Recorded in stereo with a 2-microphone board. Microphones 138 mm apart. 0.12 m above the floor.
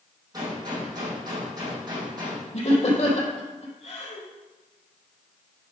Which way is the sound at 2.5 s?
50° left (ahead or behind).